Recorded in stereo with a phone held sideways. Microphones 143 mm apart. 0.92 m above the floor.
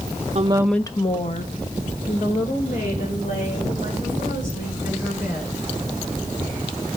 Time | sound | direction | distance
0.3 | a woman speaking | 50° right (ahead or behind) | 0.7 m